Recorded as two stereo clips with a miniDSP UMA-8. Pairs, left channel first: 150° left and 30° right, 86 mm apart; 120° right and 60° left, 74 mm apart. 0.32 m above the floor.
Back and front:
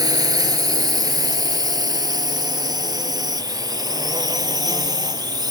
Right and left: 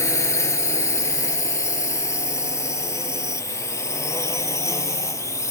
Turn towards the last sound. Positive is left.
turn(degrees=-70)